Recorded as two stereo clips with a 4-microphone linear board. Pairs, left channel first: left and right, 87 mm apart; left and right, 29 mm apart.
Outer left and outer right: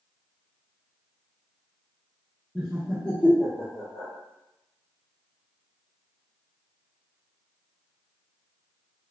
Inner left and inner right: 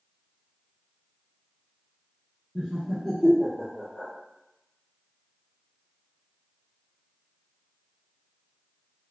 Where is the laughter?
10° right (ahead or behind), 1.0 m; by 4.1 s 45° left (ahead or behind), 1.1 m.